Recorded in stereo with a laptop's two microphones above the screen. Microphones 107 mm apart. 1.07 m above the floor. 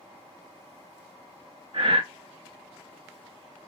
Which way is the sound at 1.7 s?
50° right (ahead or behind).